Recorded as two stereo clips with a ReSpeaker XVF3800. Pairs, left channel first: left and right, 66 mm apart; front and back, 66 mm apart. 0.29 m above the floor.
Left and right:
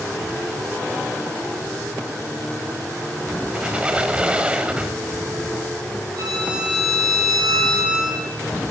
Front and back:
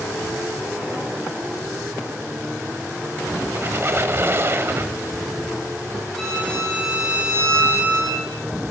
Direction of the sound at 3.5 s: 155° right.